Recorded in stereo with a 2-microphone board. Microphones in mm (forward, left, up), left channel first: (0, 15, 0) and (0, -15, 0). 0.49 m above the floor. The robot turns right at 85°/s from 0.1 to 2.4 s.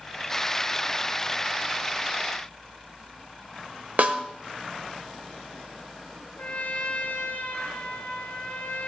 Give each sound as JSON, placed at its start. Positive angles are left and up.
{"t": 4.0, "sound": "a snare drum", "side_deg": -65, "distance_m": 0.9}
{"t": 6.4, "sound": "a trumpet", "side_deg": 70, "distance_m": 1.1}